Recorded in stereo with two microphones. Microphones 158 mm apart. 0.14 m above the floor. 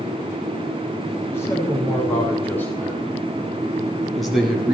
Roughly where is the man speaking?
Centre.